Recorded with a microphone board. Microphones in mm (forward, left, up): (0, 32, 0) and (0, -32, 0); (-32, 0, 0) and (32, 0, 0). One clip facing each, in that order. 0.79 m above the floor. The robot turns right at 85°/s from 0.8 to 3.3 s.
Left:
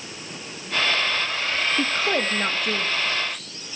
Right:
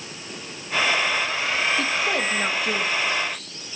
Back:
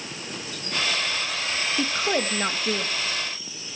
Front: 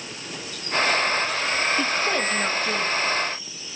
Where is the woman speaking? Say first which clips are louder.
Even, front 1 dB; 100° left, 0.9 m; by 2.9 s 160° right, 0.9 m.